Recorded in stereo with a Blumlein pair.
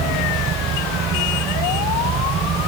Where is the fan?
25° right.